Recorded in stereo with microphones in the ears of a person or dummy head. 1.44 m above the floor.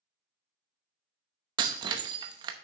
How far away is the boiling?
No boiling in this recording.